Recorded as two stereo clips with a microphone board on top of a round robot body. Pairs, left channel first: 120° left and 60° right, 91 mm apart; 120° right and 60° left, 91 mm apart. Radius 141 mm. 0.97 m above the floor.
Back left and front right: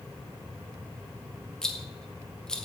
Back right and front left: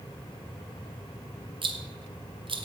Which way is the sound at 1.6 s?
35° left.